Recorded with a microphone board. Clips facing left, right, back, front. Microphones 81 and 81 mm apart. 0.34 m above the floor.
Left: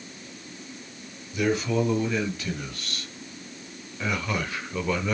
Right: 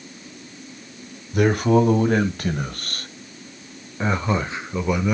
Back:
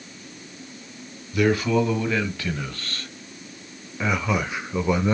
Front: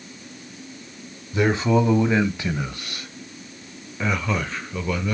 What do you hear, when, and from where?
1.3 s a man speaking: 60° right, 2.5 m; by 5.1 s 160° right, 1.2 m